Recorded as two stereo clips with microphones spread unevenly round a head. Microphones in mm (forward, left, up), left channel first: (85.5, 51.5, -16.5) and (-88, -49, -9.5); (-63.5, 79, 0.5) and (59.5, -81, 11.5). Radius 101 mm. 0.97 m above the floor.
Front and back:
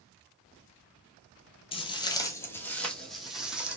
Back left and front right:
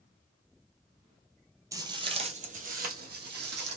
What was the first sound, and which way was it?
Footsteps, straight ahead.